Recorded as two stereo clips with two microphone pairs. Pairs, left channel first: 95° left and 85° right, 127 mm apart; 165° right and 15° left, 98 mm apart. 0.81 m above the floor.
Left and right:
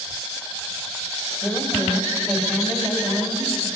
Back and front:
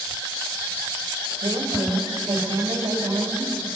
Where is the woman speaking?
5° left, 3 m.